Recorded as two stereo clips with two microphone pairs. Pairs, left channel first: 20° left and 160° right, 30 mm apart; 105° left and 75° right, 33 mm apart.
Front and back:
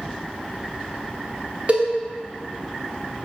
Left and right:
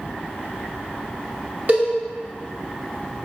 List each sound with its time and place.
1.7 s a cowbell: 115° right, 0.7 m